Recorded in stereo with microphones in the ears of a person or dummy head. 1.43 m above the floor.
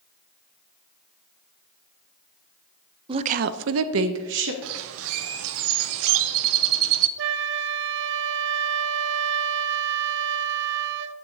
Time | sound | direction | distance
3.1 | a woman speaking | 25° right (ahead or behind) | 0.6 m
4.6 | a bird | 65° right (ahead or behind) | 0.6 m
7.2 | a flute | 65° right (ahead or behind) | 0.8 m